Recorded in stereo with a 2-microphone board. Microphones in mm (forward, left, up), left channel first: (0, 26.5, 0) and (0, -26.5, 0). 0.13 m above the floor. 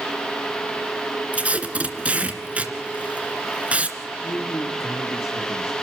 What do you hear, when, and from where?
1.3 s tape being pulled: 25° right (ahead or behind), 2 m
4.2 s a man speaking: 65° left (ahead or behind), 3 m